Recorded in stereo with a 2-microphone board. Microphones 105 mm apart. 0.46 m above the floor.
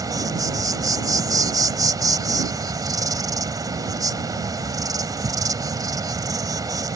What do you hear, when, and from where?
0.0 s an insect: 35° right (ahead or behind)